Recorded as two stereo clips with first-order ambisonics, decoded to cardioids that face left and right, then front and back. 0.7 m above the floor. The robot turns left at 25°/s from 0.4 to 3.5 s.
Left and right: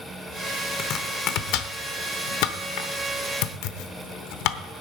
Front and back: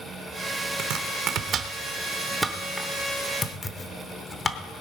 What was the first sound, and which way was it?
Chopping, 145° left.